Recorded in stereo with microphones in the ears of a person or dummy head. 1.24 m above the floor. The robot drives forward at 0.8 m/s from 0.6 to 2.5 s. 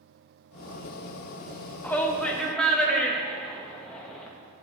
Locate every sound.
1.8 s a shout: 10° left (ahead or behind), 0.8 m; by 4.3 s 5° left (ahead or behind), 1.3 m